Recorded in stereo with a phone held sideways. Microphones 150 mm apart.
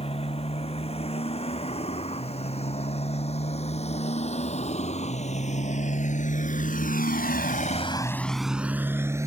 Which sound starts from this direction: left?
A motorcycle, at 0.0 s.